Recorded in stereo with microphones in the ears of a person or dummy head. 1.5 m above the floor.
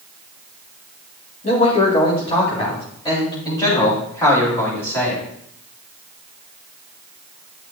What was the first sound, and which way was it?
A man speaking, 35° left (ahead or behind).